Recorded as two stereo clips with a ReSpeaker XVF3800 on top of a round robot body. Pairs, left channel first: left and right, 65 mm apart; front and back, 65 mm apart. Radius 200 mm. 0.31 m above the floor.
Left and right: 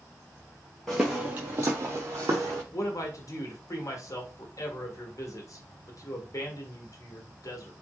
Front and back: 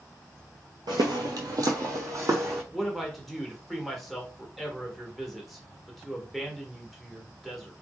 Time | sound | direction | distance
0.9 | footsteps | 175° left | 0.5 m
2.7 | a man speaking | 90° left | 1.5 m